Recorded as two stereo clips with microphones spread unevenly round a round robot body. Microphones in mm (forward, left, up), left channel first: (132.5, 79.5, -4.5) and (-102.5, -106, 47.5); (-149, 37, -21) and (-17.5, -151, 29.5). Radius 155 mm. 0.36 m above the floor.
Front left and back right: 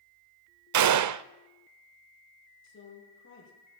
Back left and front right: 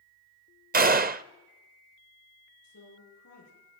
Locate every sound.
0.7 s a gunshot: 110° right, 0.7 m
2.6 s a woman speaking: 90° left, 9 m